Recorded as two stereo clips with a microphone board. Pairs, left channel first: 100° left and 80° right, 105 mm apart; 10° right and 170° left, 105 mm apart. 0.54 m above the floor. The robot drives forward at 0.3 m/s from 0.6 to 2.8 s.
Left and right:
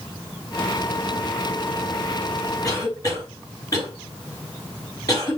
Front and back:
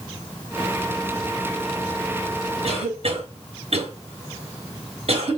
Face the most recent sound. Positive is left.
turn(degrees=155)